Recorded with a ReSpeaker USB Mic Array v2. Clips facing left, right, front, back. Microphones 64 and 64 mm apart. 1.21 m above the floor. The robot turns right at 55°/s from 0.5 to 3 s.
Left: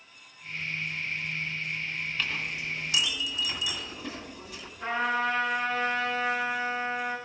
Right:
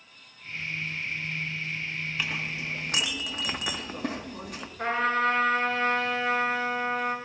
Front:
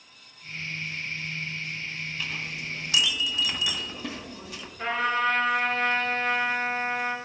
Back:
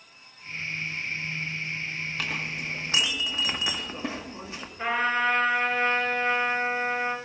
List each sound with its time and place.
2.2 s a clink: 165° right, 1.3 m; by 4.7 s 120° right, 1.3 m
4.8 s a trumpet: 100° right, 4.5 m